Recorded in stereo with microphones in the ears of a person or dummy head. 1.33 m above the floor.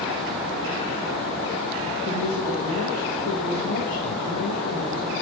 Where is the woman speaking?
80° left, 1.4 m.